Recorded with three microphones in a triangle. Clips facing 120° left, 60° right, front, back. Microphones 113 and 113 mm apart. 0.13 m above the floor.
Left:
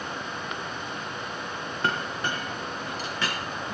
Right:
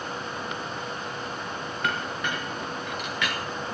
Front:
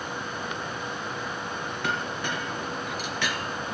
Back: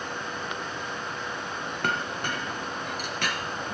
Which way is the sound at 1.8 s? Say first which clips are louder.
Left 1 dB, back 1 dB; 170° left.